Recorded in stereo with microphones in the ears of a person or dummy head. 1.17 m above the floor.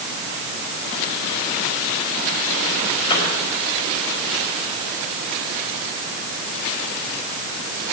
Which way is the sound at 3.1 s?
30° left (ahead or behind).